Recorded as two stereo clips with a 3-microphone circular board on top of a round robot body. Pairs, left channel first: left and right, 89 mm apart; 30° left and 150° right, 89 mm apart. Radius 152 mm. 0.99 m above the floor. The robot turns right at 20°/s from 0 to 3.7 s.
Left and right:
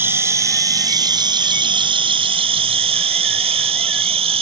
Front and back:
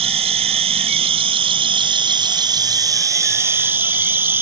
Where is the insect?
155° right; by 4.4 s 80° right.